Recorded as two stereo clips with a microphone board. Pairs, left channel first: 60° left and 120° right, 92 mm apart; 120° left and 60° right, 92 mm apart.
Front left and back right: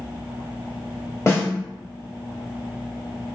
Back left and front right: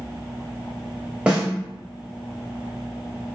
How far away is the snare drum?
About 1.1 m.